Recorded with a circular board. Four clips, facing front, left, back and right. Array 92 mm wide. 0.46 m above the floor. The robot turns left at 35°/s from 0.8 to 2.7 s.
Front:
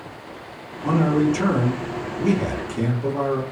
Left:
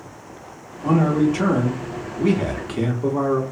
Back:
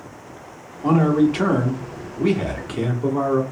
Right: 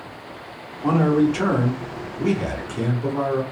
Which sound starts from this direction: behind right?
A man speaking, at 0.8 s.